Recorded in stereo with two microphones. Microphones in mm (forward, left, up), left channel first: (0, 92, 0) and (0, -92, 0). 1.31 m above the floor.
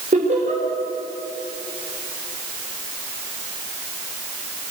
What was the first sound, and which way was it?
Laughter, 40° right (ahead or behind).